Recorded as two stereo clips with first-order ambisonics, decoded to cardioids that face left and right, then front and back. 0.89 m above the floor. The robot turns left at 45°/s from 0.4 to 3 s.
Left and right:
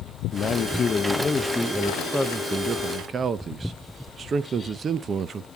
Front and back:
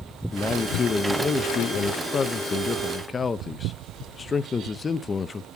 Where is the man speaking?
65° left, 0.5 m; by 5.5 s 50° right, 0.5 m.